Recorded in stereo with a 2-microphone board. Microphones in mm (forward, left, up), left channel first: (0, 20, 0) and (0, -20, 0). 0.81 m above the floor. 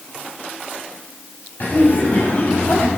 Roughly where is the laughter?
Left.